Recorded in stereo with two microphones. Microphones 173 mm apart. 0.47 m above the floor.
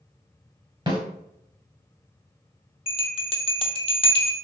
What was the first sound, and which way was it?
A snare drum, 25° right (ahead or behind).